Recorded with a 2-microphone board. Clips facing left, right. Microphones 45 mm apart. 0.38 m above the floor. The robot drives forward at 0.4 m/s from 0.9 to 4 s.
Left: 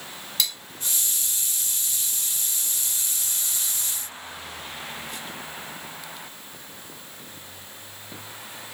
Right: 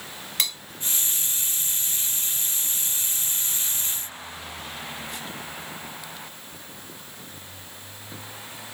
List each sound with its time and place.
0.4 s cutlery clinking: 45° right (ahead or behind), 1.5 m